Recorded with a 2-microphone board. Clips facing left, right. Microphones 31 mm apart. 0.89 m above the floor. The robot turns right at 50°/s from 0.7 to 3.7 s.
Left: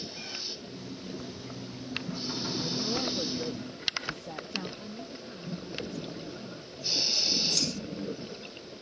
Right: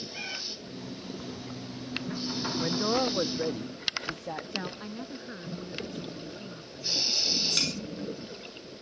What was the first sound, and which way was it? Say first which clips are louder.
A cat meowing: right 3 dB; 40° right (ahead or behind).